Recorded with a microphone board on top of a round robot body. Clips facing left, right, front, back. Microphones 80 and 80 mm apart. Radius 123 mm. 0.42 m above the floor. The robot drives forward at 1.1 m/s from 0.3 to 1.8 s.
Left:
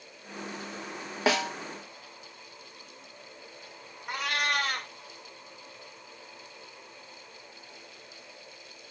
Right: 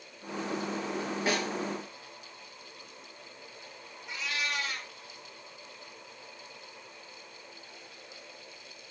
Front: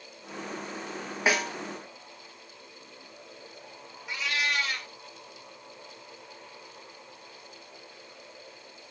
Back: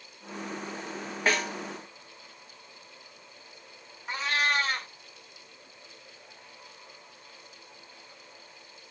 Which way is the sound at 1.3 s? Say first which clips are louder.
Left 6 dB, front 1 dB; 80° left.